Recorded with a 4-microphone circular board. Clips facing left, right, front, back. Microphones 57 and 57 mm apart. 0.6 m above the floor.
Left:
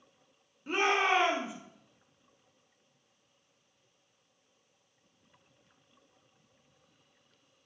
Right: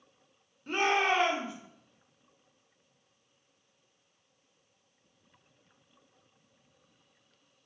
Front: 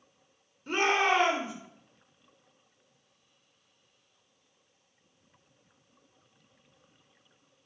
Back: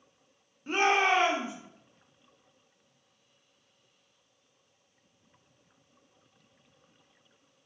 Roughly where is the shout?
Behind left.